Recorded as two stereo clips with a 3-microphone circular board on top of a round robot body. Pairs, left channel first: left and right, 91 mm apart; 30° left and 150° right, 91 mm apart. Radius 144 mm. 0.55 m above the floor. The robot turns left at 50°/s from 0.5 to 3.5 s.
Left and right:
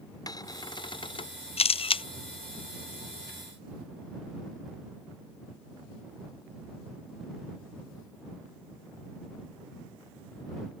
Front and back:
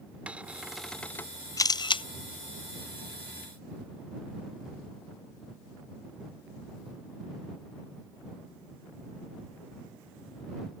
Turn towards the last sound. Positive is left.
turn(degrees=-10)